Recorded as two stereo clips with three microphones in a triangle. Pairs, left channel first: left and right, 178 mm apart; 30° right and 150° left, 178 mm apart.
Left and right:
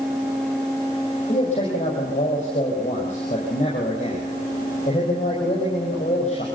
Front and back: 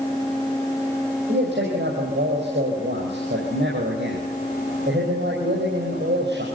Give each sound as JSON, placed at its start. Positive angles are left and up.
{"t": 1.3, "sound": "a man speaking", "azimuth_deg": 140, "distance_m": 5.5}